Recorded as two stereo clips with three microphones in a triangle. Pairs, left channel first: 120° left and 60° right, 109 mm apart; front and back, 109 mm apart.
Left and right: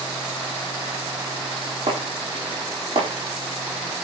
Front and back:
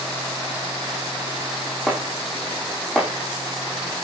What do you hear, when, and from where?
1.9 s chopping: 85° right, 7 m